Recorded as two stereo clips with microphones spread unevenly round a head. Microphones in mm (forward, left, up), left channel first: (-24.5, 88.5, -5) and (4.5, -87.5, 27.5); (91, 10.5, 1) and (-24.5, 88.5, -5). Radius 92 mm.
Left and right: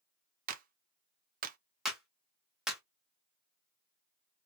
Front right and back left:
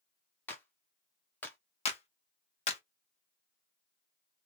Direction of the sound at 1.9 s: Straight ahead.